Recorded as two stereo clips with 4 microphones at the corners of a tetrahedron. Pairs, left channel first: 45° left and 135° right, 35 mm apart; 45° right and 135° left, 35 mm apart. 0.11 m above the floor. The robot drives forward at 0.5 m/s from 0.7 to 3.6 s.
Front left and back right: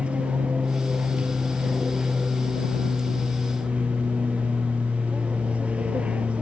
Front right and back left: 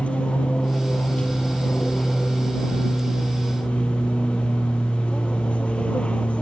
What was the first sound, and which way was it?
An aircraft, 85° right.